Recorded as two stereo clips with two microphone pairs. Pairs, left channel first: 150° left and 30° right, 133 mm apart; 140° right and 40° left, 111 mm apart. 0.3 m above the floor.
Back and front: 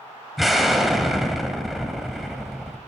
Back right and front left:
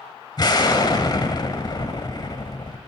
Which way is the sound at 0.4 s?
120° right.